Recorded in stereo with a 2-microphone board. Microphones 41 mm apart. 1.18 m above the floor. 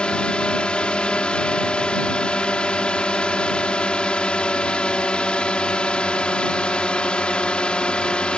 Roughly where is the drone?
Left.